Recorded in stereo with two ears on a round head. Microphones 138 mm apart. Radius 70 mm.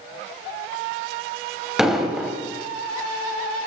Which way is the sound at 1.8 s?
Centre (ahead or behind).